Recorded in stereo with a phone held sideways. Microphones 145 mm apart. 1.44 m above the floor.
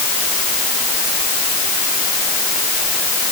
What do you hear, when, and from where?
Only background noise.